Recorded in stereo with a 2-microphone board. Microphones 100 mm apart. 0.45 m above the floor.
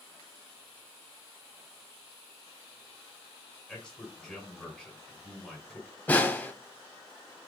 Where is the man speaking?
5° left (ahead or behind), 2.5 m.